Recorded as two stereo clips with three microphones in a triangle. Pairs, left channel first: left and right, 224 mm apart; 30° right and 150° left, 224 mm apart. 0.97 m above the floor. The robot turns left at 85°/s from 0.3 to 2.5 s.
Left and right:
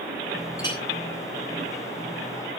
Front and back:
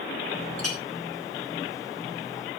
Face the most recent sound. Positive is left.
turn(degrees=5)